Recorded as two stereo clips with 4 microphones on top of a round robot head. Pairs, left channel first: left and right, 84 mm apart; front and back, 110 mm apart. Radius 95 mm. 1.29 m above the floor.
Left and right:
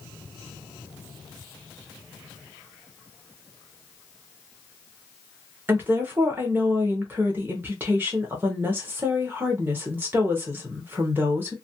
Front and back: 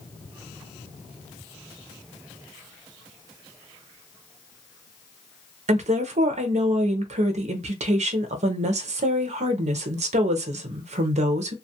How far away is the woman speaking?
About 0.6 m.